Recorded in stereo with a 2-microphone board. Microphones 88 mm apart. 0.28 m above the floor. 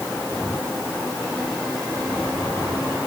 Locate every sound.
Only background noise.